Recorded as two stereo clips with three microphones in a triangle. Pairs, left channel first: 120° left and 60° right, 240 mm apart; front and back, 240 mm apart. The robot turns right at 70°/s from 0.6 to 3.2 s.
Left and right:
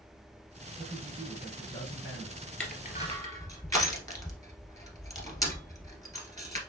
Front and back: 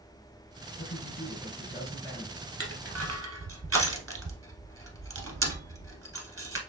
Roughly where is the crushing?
Behind left.